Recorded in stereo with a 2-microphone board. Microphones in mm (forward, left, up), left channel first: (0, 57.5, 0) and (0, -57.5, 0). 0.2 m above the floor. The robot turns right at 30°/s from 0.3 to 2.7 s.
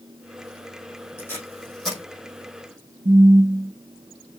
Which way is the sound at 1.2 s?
20° left (ahead or behind).